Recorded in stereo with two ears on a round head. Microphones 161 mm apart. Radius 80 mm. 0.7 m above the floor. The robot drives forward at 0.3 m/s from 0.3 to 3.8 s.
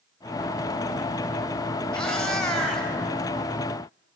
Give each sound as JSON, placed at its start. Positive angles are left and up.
{"t": 1.9, "sound": "a cat meowing", "side_deg": 5, "distance_m": 1.2}